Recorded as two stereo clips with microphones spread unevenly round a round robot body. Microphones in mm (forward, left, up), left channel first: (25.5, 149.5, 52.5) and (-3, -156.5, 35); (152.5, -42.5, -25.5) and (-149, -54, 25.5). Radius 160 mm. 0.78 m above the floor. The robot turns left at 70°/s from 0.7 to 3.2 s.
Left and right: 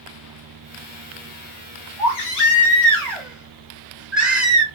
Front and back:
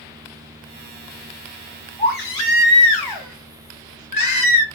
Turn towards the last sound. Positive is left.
turn(degrees=-10)